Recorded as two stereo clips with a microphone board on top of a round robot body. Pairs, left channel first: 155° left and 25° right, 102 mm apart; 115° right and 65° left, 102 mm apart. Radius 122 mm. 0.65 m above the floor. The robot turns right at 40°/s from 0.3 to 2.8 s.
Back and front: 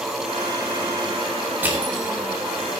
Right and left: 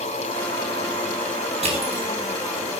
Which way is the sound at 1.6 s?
50° left.